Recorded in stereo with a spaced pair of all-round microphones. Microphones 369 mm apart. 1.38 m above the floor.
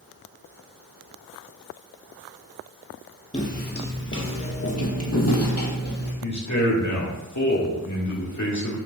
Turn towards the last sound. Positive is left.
turn(degrees=50)  # may be behind; listen again after turning